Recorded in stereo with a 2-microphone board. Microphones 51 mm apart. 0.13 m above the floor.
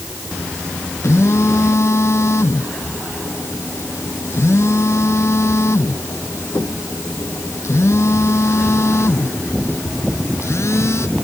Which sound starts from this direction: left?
A phone buzzing, at 1.0 s.